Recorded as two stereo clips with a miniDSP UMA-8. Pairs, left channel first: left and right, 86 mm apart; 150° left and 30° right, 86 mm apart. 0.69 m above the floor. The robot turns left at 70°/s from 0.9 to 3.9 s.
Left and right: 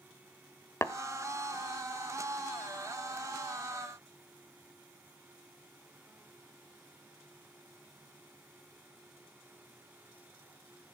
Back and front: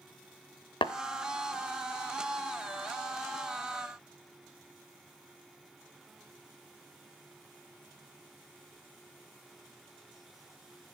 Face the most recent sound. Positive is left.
turn(degrees=-65)